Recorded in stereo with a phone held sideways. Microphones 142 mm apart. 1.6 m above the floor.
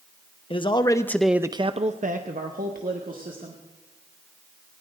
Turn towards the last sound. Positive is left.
turn(degrees=-80)